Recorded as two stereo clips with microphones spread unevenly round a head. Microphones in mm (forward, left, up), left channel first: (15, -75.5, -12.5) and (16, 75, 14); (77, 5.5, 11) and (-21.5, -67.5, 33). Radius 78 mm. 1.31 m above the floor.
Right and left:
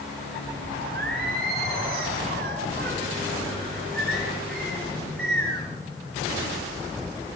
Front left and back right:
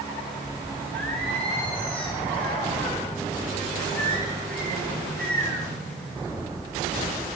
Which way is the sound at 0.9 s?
120° left.